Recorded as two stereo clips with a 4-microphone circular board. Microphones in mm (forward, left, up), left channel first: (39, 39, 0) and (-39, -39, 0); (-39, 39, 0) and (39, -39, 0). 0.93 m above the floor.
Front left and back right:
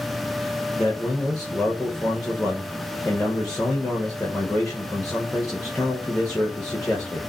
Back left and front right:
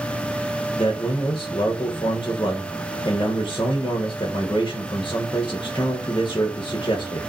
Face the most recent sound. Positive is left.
turn(degrees=130)